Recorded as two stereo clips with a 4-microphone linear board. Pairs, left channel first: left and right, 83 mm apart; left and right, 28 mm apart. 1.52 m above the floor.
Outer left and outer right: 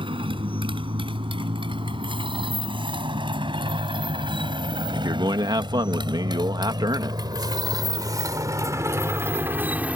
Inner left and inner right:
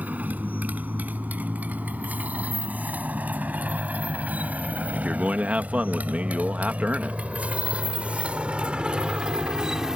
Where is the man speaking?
55° right (ahead or behind).